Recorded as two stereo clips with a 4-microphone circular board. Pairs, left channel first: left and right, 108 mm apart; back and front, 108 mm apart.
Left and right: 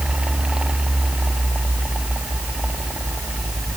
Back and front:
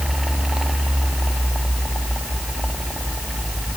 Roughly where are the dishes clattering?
No dishes clattering in this recording.